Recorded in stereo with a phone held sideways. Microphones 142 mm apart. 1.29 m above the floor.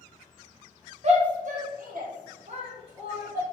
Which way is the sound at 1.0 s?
50° right (ahead or behind).